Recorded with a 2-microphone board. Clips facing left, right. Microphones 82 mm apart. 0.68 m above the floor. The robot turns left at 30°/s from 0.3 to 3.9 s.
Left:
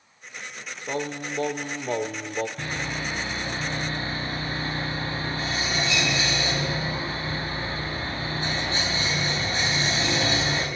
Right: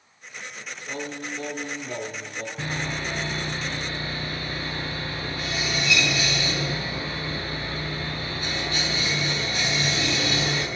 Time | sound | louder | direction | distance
0.9 | singing | left 4 dB | 135° left | 0.7 m
2.6 | sawing | right 1 dB | 175° right | 4 m